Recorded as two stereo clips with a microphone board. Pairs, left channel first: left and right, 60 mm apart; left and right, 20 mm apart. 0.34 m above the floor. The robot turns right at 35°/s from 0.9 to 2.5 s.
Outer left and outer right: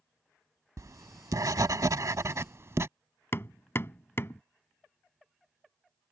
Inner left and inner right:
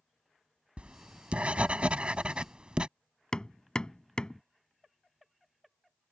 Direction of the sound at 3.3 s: 45° left (ahead or behind).